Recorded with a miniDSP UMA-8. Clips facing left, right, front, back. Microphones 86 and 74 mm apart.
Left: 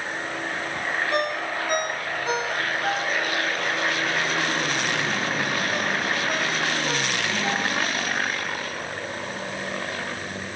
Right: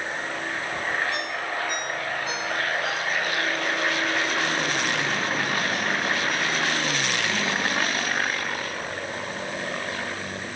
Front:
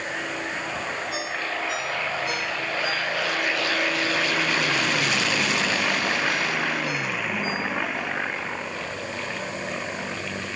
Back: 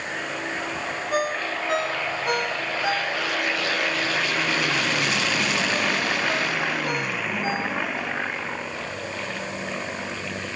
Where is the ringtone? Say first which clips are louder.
Left 4 dB, back 4 dB; 135° left.